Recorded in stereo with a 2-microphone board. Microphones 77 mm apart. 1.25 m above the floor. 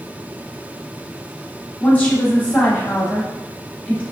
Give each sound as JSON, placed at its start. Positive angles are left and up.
{"t": 1.8, "sound": "a woman speaking", "side_deg": 20, "distance_m": 1.0}